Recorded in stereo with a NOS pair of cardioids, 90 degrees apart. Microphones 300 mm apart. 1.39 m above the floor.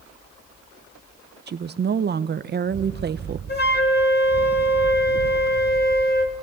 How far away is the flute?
About 3 m.